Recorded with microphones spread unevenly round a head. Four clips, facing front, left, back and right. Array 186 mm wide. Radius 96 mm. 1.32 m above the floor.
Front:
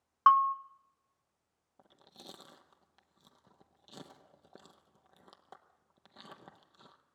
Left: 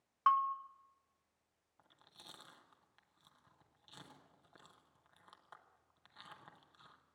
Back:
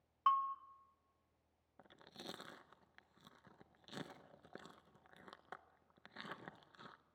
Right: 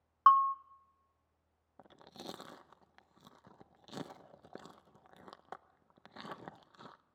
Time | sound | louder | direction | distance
0.3 | a bell | right 7 dB, front 11 dB | 25° right | 0.6 m
1.8 | chewing | right 14 dB, back 1 dB | 85° right | 0.6 m